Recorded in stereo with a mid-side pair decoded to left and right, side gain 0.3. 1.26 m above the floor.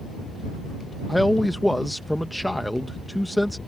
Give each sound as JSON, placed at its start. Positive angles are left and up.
{"t": 1.1, "sound": "a man speaking", "azimuth_deg": 10}